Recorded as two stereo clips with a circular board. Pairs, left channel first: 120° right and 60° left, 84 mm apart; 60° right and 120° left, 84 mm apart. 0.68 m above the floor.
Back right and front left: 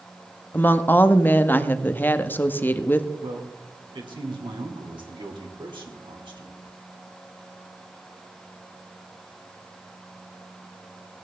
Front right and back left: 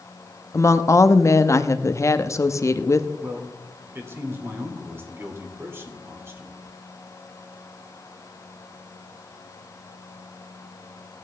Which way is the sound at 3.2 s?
60° left.